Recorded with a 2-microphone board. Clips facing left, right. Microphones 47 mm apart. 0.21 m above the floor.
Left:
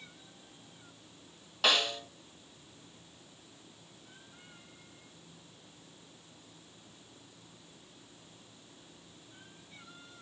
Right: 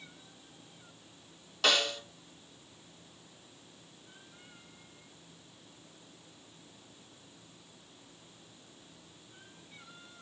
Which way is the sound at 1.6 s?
10° left (ahead or behind).